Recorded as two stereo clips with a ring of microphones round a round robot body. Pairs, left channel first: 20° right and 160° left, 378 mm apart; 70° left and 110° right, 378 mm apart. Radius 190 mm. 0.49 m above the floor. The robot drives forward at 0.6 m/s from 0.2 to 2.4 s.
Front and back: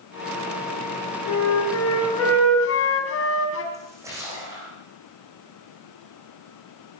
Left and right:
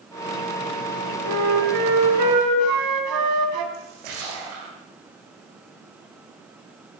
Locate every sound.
1.2 s a flute: 70° right, 4 m; by 3.6 s 80° right, 4 m
3.7 s a splash: 120° right, 9 m